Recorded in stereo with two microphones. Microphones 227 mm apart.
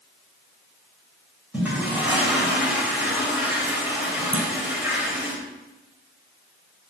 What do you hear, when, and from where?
1.5 s a toilet flushing: 5° right (ahead or behind), 3 m
4.3 s a clunk: 65° right (ahead or behind), 1.1 m